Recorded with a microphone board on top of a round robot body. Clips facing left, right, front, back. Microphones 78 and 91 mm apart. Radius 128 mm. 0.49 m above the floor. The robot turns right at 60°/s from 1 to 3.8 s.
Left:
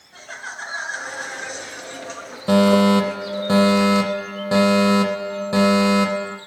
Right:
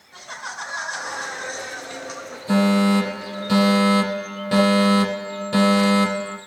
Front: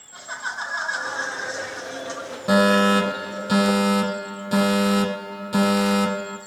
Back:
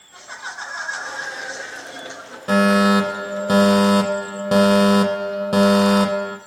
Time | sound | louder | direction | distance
0.1 | laughter | right 1 dB, front 2 dB | 80° right | 5.5 m
2.5 | a fire alarm | left 3 dB, back 2 dB | 75° left | 4.5 m